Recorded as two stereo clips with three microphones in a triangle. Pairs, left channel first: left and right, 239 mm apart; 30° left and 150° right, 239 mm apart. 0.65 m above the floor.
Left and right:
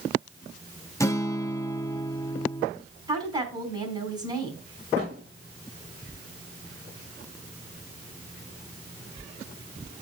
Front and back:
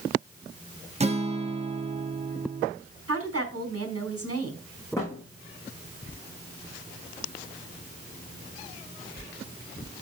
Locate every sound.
1.0 s a guitar: 160° left, 0.8 m
3.1 s a woman speaking: 165° right, 4.5 m
5.0 s a thud: 50° right, 4 m